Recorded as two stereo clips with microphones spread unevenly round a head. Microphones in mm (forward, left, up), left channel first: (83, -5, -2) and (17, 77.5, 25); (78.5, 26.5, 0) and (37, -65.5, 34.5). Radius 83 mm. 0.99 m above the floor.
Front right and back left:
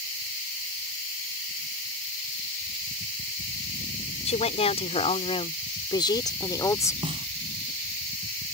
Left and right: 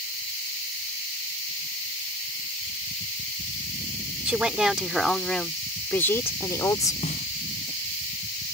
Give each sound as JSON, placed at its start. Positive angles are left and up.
{"t": 4.2, "sound": "a woman speaking", "azimuth_deg": -35}
{"t": 7.0, "sound": "a snare drum", "azimuth_deg": 95}